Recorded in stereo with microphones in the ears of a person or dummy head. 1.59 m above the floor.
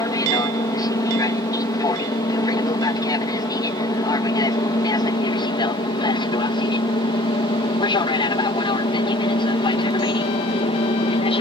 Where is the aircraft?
20° left (ahead or behind); by 11.4 s 30° left (ahead or behind).